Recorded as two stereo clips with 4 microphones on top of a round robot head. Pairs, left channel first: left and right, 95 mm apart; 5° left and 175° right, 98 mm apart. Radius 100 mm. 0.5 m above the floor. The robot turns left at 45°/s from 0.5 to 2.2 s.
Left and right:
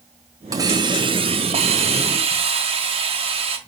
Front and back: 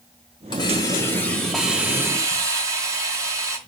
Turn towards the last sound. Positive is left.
turn(degrees=-115)